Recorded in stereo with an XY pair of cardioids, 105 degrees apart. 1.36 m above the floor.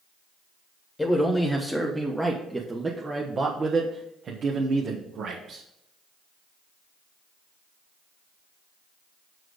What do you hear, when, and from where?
1.0 s a man speaking: 20° left, 1.5 m; by 5.6 s 70° right, 1.9 m